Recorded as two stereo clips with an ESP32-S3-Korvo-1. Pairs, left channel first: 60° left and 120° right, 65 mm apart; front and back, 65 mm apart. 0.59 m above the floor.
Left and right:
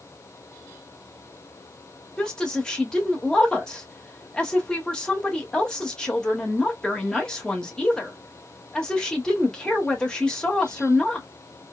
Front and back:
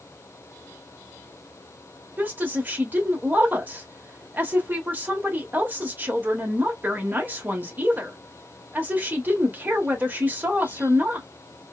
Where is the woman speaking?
135° left, 0.9 m.